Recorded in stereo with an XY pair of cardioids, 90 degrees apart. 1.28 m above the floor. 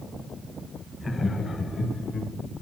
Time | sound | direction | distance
1.0 | laughter | 30° left | 0.9 m